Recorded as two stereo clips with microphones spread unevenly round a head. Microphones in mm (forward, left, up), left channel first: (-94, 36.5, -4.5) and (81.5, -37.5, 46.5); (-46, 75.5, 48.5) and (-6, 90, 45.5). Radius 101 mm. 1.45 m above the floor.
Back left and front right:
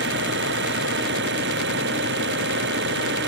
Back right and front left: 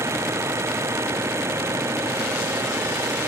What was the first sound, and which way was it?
An engine running, 10° left.